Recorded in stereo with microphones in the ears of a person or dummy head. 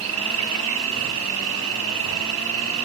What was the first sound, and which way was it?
An insect, 70° right (ahead or behind).